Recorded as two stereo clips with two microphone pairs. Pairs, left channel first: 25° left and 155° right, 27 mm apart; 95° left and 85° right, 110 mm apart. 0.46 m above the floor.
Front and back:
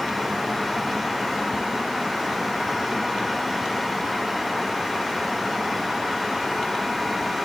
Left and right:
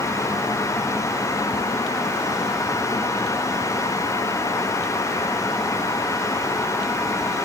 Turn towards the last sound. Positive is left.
No sound to turn to.